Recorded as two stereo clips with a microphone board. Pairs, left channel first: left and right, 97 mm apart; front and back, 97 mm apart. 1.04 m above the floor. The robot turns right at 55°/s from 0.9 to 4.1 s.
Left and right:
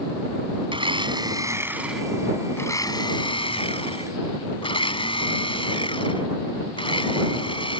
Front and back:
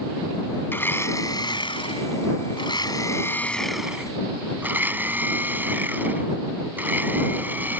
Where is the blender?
65° right; by 7.8 s 110° left.